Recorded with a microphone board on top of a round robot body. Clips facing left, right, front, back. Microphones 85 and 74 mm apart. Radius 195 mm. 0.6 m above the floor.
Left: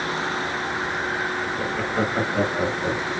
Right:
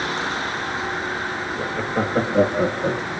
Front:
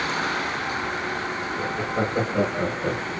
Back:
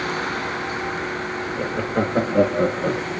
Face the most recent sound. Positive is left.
turn(degrees=-135)